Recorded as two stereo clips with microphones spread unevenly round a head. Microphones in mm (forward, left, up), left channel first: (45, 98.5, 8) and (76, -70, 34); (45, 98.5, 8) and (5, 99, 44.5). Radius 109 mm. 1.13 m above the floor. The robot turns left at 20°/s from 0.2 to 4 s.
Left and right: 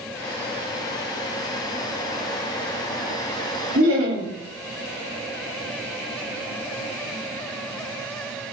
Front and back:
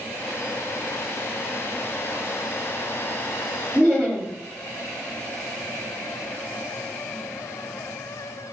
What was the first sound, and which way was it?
Laughter, 100° right.